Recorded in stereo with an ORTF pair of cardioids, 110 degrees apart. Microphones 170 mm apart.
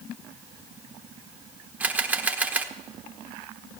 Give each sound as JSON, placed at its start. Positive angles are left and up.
{"t": 1.8, "sound": "a camera shutter", "azimuth_deg": -10, "distance_m": 1.1}